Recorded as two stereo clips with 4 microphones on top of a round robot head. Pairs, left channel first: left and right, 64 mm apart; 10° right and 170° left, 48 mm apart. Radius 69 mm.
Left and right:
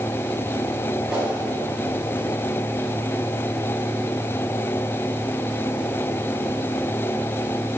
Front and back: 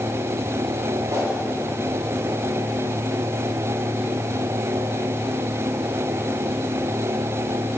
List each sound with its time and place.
1.1 s a whoosh: 170° right, 3.5 m